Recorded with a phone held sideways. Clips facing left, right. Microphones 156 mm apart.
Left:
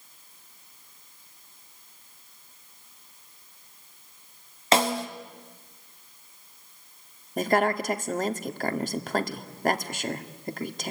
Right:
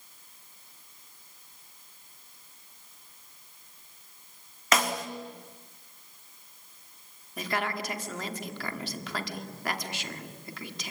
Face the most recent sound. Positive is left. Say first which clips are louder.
# left 9 dB
turn(degrees=45)  # may be behind; listen again after turning